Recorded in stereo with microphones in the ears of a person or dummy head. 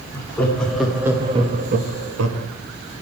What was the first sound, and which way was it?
Laughter, 10° left (ahead or behind).